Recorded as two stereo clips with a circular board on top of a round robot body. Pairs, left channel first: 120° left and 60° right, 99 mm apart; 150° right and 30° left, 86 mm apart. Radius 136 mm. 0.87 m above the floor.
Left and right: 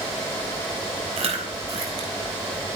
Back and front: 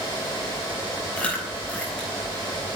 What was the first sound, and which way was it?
Chewing, 75° right.